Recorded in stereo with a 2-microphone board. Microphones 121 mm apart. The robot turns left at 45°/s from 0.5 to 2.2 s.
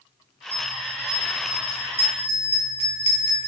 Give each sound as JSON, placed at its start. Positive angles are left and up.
{"t": 0.5, "sound": "a bell", "side_deg": 55, "distance_m": 2.5}